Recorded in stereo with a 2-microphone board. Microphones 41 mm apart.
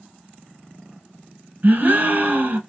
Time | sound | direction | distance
1.6 | a gasp | 45° right (ahead or behind) | 0.7 m